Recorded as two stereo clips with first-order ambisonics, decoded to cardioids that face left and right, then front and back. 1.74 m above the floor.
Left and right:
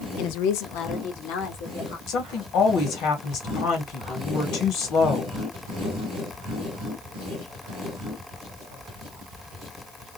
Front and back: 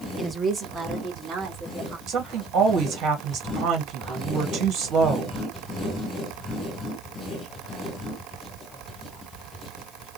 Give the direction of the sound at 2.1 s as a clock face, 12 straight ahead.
8 o'clock.